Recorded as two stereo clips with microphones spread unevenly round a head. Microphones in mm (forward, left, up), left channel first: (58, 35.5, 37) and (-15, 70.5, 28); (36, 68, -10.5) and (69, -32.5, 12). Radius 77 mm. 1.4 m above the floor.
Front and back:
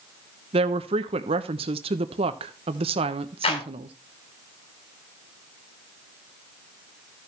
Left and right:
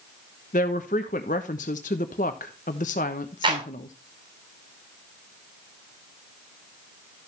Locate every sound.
0.5 s a woman speaking: 155° left, 1.0 m
3.4 s a clap: 30° right, 7 m